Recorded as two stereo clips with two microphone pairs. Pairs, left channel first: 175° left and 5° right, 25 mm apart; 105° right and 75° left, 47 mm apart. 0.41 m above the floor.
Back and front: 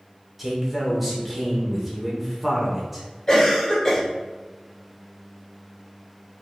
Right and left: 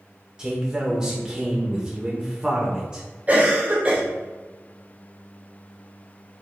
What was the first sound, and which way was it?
A man speaking, 55° left.